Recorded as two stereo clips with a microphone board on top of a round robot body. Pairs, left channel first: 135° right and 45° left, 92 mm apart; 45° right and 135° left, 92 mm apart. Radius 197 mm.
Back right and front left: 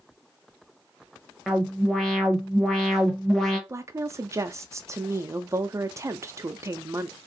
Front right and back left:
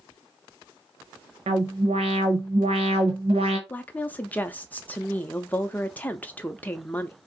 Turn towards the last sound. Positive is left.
turn(degrees=15)